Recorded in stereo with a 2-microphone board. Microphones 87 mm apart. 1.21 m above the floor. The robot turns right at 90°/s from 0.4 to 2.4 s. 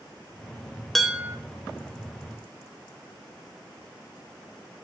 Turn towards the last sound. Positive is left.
turn(degrees=-55)